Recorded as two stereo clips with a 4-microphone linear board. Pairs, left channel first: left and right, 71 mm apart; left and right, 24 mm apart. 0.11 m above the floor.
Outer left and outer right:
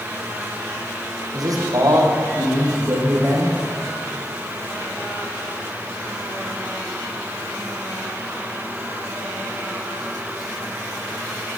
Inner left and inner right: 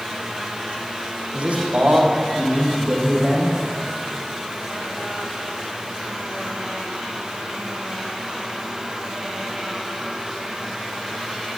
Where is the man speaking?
60° right (ahead or behind), 5 m; by 3.6 s 35° right (ahead or behind), 5.5 m.